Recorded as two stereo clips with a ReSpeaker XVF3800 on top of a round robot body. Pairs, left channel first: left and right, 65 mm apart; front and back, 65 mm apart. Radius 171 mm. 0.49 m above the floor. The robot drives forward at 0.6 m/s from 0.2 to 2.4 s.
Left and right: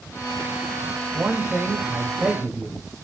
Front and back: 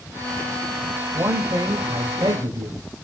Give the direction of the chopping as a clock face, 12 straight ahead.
I don't hear chopping.